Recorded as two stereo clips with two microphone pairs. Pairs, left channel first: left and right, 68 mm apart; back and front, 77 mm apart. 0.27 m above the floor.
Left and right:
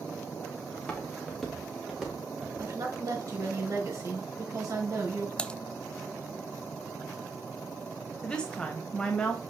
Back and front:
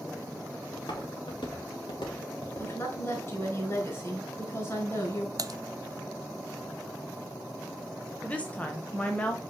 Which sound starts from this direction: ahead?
Typing on a keyboard, at 5.4 s.